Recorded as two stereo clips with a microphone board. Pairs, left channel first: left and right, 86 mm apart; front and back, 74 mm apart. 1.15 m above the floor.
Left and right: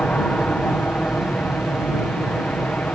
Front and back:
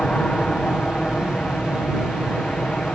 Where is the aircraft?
50° left.